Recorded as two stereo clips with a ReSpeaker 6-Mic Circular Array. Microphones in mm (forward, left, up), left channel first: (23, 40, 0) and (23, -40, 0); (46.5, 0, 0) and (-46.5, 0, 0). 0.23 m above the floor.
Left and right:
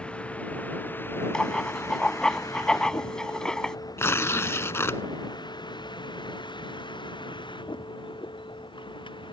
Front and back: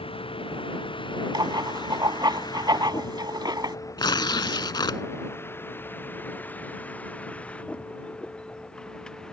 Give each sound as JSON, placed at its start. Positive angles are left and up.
{"t": 0.0, "sound": "a vehicle", "azimuth_deg": 15}
{"t": 1.3, "sound": "writing", "azimuth_deg": 170}
{"t": 4.0, "sound": "tearing paper", "azimuth_deg": 35}